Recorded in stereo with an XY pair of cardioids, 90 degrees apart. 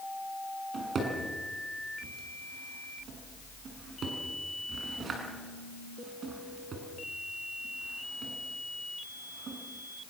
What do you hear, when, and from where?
0.7 s a drawer: 60° right, 6.5 m